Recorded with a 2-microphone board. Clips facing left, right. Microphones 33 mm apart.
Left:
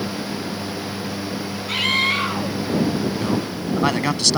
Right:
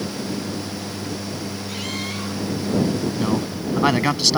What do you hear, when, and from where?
1.7 s a scream: 50° left (ahead or behind)
3.2 s a man speaking: 10° right (ahead or behind)